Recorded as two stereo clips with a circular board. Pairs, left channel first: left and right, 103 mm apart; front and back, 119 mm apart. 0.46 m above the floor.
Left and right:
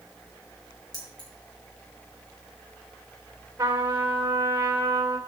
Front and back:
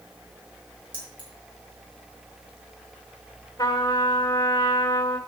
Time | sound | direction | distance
0.9 | keys jangling | 40° left | 4.5 m
3.6 | a trumpet | 35° right | 1.9 m